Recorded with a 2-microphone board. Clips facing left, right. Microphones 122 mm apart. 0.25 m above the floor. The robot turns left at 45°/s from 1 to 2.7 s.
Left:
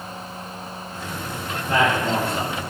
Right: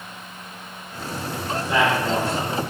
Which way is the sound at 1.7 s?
125° left.